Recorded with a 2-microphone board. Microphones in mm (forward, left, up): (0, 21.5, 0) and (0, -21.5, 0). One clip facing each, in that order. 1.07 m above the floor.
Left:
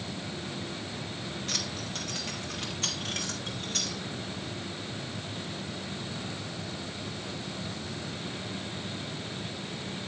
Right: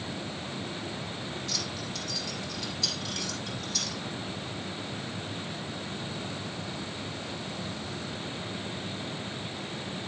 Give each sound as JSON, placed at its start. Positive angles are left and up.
{"t": 1.5, "sound": "keys jangling", "side_deg": 45, "distance_m": 1.2}